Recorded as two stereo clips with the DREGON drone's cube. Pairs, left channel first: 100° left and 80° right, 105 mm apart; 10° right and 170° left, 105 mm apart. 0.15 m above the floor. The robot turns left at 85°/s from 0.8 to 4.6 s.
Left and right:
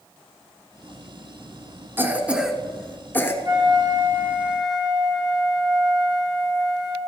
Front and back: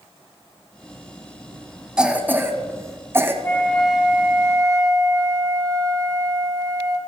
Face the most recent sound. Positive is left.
turn(degrees=-160)